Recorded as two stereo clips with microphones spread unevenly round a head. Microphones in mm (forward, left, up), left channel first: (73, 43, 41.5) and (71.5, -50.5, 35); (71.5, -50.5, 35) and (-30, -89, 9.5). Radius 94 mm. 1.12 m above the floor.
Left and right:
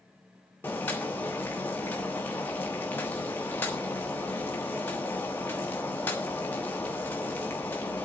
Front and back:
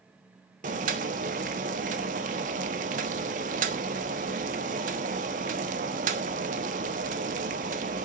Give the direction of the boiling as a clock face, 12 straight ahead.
6 o'clock.